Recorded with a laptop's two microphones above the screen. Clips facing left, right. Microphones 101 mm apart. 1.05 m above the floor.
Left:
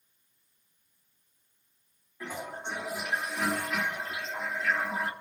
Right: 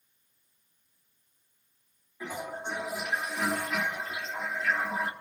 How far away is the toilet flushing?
About 3 m.